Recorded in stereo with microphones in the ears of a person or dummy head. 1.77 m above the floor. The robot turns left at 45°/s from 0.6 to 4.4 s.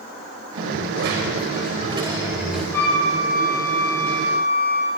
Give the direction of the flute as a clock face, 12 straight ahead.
6 o'clock.